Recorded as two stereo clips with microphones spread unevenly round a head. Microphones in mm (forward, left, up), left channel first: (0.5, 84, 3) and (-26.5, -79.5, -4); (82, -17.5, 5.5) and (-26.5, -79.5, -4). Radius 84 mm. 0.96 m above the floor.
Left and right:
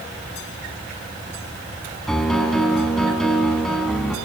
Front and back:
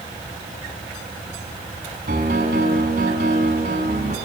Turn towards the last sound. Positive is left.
turn(degrees=170)